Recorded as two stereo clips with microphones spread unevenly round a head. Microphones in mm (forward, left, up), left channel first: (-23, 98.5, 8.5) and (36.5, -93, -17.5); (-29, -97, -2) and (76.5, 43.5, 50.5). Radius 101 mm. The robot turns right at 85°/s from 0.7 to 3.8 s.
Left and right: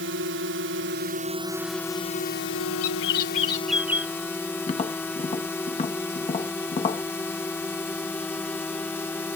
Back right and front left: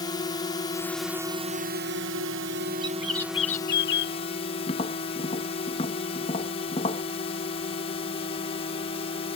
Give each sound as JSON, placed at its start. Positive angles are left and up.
{"t": 0.0, "sound": "a drone", "azimuth_deg": -75}
{"t": 2.8, "sound": "a bird", "azimuth_deg": 120}
{"t": 4.7, "sound": "tapping", "azimuth_deg": 160}